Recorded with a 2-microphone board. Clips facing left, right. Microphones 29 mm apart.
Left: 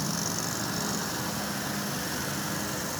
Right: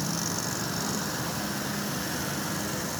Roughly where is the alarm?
No alarm in this recording.